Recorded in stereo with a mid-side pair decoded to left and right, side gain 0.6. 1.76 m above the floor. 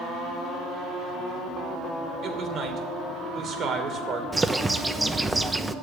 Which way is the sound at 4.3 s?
15° right.